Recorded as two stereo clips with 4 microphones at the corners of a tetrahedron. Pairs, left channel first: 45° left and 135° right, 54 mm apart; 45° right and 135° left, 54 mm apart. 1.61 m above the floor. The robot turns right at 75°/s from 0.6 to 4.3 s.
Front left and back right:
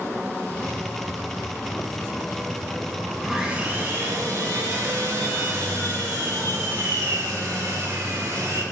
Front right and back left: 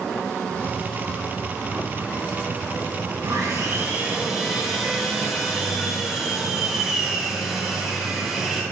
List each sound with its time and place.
3.2 s sawing: 140° left, 2 m; by 8.6 s 140° right, 2 m